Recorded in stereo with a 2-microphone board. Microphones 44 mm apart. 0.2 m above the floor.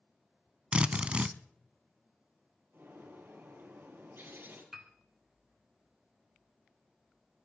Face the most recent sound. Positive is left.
turn(degrees=-5)  # may be behind; listen again after turning